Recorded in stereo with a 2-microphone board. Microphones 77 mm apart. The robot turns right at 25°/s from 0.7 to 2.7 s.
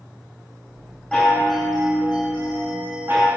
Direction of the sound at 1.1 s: 175° left.